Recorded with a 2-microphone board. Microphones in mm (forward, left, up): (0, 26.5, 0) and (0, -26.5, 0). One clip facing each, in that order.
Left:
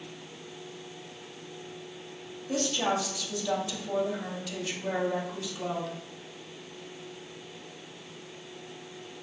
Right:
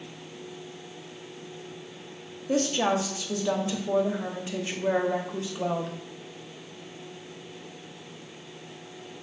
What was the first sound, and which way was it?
A woman speaking, 30° right (ahead or behind).